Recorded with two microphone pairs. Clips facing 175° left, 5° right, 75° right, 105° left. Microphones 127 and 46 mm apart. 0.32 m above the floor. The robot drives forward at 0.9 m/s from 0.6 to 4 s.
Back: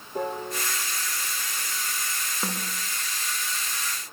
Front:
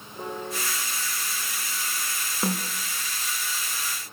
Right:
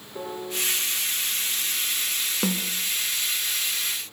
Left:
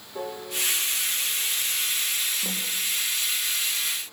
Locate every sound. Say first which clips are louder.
0.1 s a piano: back 3 dB, right 1 dB; 175° right, 9 m
2.4 s a snare drum: front 5 dB, right 5 dB; 85° right, 3.5 m; by 2.7 s 90° right, 3.5 m